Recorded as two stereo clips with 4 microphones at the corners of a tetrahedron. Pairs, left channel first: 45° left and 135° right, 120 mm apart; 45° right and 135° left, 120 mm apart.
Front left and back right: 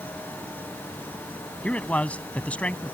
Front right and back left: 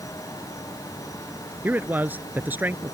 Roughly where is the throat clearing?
I don't hear throat clearing.